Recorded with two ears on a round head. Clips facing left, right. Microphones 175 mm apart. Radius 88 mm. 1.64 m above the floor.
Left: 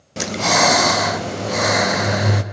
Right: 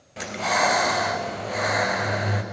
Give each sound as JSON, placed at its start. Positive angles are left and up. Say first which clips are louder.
{"t": 0.2, "sound": "breathing", "louder": "left 6 dB", "side_deg": 60, "distance_m": 0.7}